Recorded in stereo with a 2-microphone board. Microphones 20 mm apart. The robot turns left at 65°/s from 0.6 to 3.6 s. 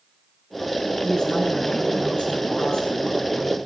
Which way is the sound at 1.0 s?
Straight behind.